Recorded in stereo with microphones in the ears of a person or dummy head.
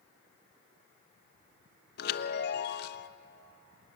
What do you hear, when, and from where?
2.0 s a chime: 65° left (ahead or behind), 1.0 m